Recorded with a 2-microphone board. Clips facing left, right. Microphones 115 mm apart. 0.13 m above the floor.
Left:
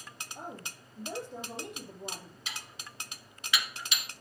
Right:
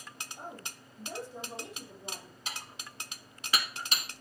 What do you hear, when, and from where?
0.3 s a woman speaking: 60° left (ahead or behind), 4 m
2.5 s dishes clattering: 40° right (ahead or behind), 1.2 m